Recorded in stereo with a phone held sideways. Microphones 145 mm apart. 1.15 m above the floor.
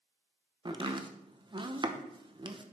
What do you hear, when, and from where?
0.7 s chopping: 35° right (ahead or behind), 0.9 m